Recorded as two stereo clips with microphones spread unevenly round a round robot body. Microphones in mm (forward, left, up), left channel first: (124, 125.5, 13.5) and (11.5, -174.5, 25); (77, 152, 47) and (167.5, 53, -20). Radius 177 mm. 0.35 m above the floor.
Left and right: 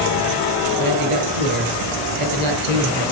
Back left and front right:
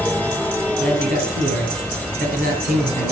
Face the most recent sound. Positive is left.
turn(degrees=-85)